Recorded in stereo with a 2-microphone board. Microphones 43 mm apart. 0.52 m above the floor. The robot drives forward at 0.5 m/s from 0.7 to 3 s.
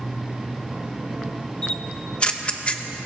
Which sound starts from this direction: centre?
A camera shutter, at 1.6 s.